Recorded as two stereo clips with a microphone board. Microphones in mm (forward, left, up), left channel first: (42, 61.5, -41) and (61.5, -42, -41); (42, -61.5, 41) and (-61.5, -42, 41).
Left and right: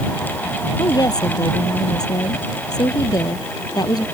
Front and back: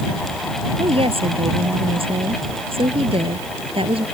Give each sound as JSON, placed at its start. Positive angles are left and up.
{"t": 0.8, "sound": "a woman speaking", "azimuth_deg": 150}